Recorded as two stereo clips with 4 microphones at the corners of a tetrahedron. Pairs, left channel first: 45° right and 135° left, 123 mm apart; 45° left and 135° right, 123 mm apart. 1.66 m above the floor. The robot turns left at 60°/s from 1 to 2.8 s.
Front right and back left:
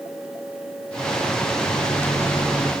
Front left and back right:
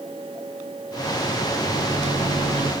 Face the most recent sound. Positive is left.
turn(degrees=-160)